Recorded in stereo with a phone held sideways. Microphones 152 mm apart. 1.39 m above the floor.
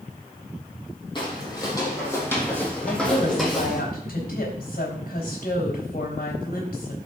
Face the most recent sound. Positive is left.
turn(degrees=80)